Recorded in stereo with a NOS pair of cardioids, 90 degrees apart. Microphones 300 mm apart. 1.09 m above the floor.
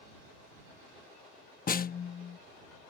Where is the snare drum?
30° left.